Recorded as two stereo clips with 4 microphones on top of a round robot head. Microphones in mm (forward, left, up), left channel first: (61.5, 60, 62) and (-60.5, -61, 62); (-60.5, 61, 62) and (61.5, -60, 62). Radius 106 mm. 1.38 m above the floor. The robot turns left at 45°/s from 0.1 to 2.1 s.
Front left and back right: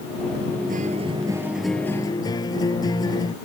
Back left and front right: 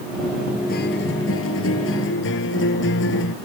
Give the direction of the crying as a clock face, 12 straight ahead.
I don't hear crying.